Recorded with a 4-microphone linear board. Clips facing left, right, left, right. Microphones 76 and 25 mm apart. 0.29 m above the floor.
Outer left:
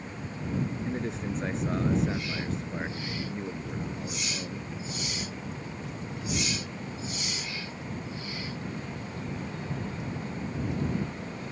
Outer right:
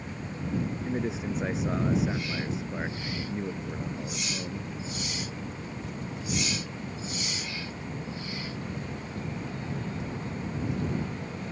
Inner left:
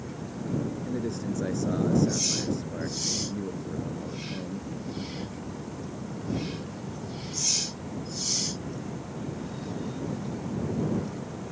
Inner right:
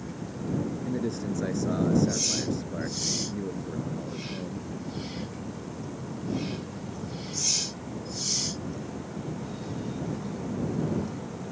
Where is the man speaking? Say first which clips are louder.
Outer right 2 dB, inner right 1 dB; 5° right (ahead or behind).